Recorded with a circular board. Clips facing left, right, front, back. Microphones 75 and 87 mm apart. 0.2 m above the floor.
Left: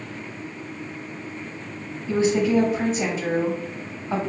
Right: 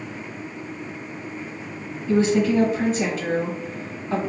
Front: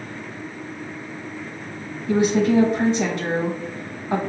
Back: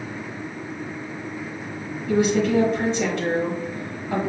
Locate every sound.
2.1 s a woman speaking: 20° left, 1.0 m